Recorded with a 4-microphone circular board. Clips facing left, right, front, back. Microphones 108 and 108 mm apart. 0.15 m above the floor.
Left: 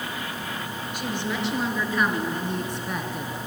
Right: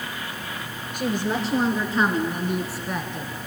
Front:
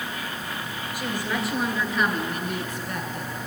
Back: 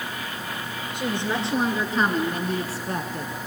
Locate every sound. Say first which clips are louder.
0.9 s a woman speaking: right 5 dB, back 2 dB; 120° right, 3 m; by 3.3 s 155° left, 1.9 m